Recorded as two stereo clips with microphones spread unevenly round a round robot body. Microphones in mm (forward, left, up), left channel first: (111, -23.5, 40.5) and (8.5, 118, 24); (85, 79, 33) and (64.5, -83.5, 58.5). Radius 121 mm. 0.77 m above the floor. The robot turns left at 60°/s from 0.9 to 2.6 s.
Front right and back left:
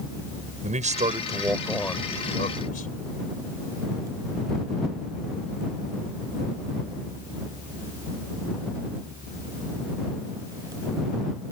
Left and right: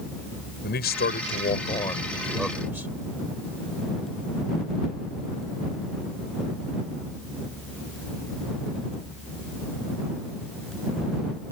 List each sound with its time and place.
0.6 s a man speaking: 85° left; by 2.9 s 20° right